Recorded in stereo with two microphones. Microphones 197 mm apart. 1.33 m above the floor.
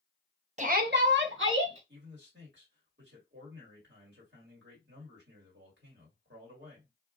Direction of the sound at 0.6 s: 35° right (ahead or behind).